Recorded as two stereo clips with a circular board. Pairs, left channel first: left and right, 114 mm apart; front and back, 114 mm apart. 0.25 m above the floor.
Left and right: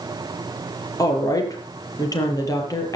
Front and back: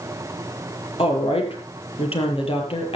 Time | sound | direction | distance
1.0 | a woman speaking | 30° left | 6.5 m